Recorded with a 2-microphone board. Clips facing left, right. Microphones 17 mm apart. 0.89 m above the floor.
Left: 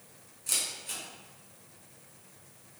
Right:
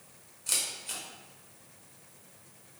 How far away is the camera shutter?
About 1.1 m.